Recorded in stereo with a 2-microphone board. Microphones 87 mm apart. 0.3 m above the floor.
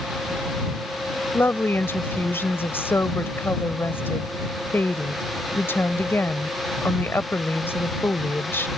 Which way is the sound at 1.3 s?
25° left (ahead or behind).